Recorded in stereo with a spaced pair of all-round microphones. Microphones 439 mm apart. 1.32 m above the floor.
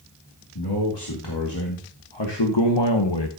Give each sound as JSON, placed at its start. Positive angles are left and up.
{"t": 0.6, "sound": "a man speaking", "side_deg": 70, "distance_m": 2.5}